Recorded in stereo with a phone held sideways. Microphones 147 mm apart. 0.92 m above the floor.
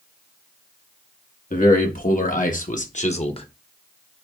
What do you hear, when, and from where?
1.5 s a man speaking: 65° left (ahead or behind), 1.6 m; by 3.5 s 35° left (ahead or behind), 0.8 m